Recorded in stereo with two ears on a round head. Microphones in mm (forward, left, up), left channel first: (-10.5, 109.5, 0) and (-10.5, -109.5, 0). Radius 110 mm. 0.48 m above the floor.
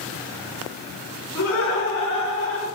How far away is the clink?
I don't hear a clink.